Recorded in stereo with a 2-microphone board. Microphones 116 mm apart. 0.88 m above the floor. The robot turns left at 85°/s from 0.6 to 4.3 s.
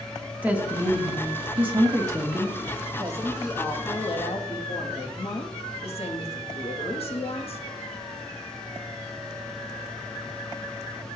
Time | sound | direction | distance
0.4 | a woman speaking | 15° right | 1.2 m
3.0 | a woman speaking | 140° right | 1.2 m